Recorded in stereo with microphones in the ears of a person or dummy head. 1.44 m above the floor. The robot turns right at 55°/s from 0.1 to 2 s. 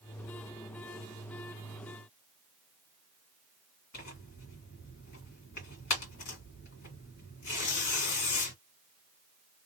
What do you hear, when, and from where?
3.9 s tearing paper: 60° left (ahead or behind), 1.8 m